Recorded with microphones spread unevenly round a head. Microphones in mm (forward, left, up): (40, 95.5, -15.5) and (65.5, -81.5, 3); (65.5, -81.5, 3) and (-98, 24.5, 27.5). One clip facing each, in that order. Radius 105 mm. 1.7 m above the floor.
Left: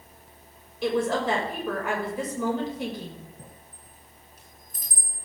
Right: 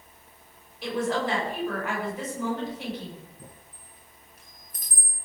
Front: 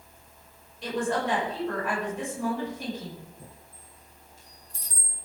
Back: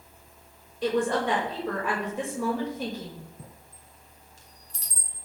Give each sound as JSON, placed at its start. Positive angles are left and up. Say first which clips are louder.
{"t": 0.8, "sound": "a woman speaking", "louder": "left 3 dB, back 3 dB", "azimuth_deg": 110, "distance_m": 6.0}
{"t": 3.4, "sound": "a chime", "louder": "left 1 dB, even", "azimuth_deg": 165, "distance_m": 4.5}